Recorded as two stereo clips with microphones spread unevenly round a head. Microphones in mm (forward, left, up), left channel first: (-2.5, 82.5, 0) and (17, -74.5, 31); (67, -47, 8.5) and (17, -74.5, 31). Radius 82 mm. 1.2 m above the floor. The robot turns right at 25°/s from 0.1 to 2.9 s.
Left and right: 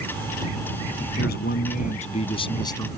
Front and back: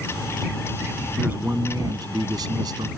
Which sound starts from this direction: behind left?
A man speaking, at 1.2 s.